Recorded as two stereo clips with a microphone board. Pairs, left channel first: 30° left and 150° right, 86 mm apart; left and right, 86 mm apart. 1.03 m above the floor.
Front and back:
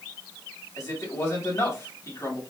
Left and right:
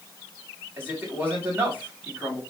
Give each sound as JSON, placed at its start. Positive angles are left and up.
{"t": 0.8, "sound": "a man speaking", "azimuth_deg": -25, "distance_m": 3.0}